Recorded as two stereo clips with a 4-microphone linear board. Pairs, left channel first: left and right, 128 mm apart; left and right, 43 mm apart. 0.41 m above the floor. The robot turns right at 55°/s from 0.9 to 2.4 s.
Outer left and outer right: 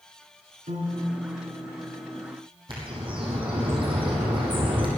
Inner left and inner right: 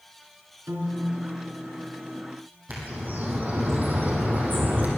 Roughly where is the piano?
Right.